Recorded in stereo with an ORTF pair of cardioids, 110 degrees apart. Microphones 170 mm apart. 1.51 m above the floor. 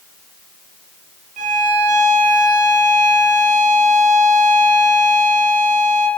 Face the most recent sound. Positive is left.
turn(degrees=-45)